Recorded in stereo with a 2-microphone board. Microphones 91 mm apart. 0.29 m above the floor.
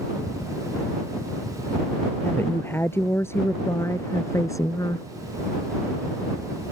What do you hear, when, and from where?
2.2 s a woman speaking: 25° left (ahead or behind); by 5.1 s 40° left (ahead or behind)